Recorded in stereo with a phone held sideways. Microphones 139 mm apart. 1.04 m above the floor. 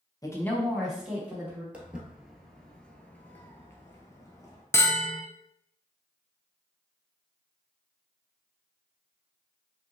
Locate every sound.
0.2 s a woman speaking: 25° left (ahead or behind), 0.9 m; by 1.6 s 15° right (ahead or behind), 2.5 m
1.7 s footsteps: 10° right (ahead or behind), 1.1 m; by 4.6 s 25° left (ahead or behind), 1.4 m
4.7 s a bell: 20° left (ahead or behind), 0.5 m